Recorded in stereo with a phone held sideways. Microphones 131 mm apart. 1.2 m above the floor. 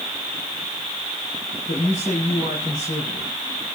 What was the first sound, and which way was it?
A man speaking, 80° left.